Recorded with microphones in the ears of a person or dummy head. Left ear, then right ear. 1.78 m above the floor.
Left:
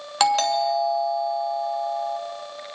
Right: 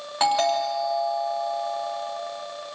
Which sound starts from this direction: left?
A doorbell, at 0.2 s.